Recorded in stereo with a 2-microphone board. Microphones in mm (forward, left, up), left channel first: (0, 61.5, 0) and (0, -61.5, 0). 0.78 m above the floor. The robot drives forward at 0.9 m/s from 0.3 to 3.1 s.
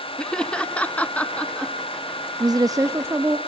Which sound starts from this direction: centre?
Laughter, at 0.2 s.